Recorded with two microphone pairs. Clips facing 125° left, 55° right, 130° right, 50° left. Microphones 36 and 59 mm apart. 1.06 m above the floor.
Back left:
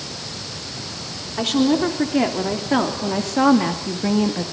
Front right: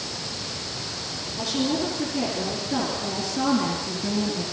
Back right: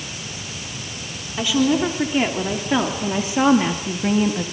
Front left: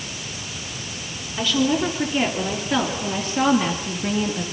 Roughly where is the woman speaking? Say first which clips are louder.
Back left 8 dB, back right 2 dB; behind left.